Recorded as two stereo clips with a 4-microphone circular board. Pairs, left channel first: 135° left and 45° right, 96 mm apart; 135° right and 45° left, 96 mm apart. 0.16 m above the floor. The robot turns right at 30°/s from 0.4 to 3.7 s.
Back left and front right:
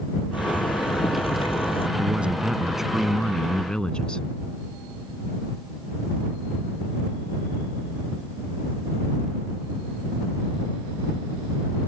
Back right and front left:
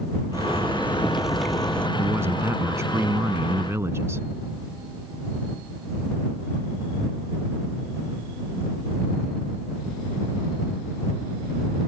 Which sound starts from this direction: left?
A zipper, at 0.3 s.